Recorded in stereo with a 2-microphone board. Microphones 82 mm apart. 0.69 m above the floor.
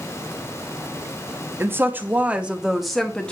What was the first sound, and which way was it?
A woman speaking, 30° right (ahead or behind).